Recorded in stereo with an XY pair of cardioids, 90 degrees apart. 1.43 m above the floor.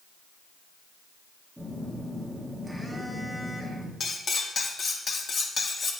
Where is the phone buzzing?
Straight ahead, 3.5 m.